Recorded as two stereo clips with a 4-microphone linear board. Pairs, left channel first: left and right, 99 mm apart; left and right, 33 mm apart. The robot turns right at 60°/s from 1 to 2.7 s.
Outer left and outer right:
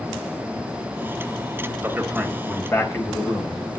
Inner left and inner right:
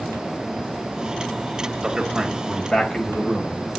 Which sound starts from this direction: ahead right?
A man speaking, at 1.8 s.